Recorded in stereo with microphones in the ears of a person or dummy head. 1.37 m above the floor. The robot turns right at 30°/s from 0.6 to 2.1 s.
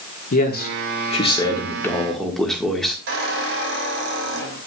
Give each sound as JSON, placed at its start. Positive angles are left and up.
{"t": 0.3, "sound": "a man speaking", "azimuth_deg": 130, "distance_m": 1.5}
{"t": 3.1, "sound": "a squeak", "side_deg": -75, "distance_m": 5.5}